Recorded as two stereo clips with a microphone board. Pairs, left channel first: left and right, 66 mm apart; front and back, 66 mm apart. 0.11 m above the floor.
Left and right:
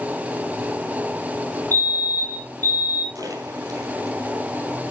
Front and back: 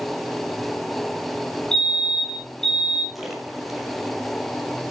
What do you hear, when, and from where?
1.7 s a fire alarm: 80° right, 4 m
3.1 s a splash: 95° right, 3.5 m